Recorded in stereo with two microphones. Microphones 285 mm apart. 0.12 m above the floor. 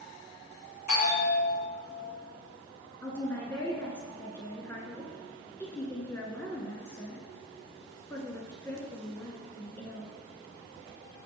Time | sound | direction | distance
0.9 | a bell | 80° left | 3 m
3.0 | a woman speaking | 10° left (ahead or behind) | 1.1 m